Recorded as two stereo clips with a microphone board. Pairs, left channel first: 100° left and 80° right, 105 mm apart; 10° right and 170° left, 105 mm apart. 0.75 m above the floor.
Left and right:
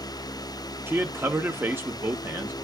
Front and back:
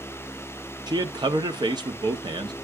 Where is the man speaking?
145° right, 1.0 m.